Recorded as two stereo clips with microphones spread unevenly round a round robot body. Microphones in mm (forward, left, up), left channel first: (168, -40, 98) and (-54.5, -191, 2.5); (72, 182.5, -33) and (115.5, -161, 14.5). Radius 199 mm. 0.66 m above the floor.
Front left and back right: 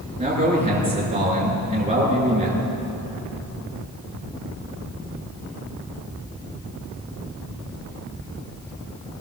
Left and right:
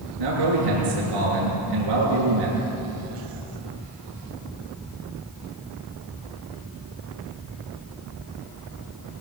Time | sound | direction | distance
0.2 | a man speaking | 80° right | 9 m